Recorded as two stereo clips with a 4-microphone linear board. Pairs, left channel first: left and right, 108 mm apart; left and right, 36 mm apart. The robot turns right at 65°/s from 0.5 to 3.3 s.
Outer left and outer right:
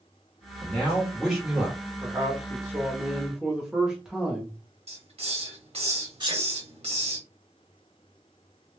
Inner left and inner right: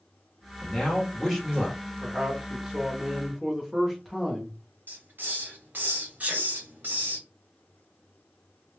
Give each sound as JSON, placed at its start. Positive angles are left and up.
{"t": 0.6, "sound": "a man speaking", "side_deg": 10, "distance_m": 0.9}
{"t": 2.0, "sound": "a man speaking", "side_deg": -25, "distance_m": 0.8}
{"t": 4.9, "sound": "a hiss", "side_deg": -65, "distance_m": 1.1}
{"t": 6.2, "sound": "a sneeze", "side_deg": -40, "distance_m": 1.7}